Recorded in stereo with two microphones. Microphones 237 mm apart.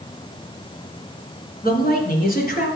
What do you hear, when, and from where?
1.6 s a man speaking: 40° left (ahead or behind), 2.5 m